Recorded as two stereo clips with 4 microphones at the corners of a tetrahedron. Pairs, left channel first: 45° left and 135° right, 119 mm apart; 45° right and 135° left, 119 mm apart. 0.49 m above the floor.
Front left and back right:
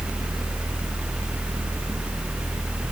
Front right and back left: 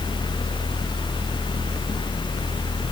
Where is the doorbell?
I don't hear a doorbell.